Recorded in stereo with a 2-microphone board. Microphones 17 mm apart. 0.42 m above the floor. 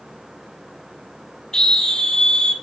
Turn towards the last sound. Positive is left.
turn(degrees=40)  # may be behind; listen again after turning